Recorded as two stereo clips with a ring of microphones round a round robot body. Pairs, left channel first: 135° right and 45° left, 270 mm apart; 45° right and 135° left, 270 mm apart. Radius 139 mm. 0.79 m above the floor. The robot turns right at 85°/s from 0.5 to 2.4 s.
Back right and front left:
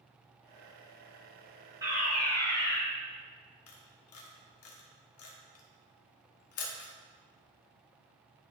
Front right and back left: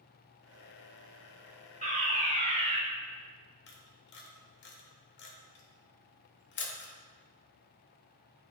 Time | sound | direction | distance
1.8 | a fire alarm | 110° left | 1.7 m
3.7 | a camera shutter | 95° right | 1.1 m